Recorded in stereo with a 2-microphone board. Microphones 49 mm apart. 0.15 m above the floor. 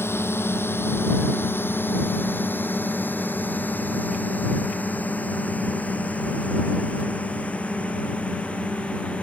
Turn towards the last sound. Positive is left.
turn(degrees=25)  # may be behind; listen again after turning